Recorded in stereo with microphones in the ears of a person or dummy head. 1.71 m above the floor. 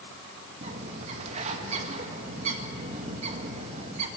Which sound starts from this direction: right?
A bird, at 0.6 s.